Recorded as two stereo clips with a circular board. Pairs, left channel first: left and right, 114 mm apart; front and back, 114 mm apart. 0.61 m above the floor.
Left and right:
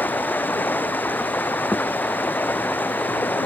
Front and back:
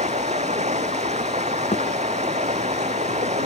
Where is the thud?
15° left.